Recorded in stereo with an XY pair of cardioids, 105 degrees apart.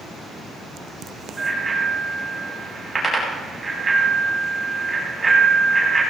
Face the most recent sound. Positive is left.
turn(degrees=-15)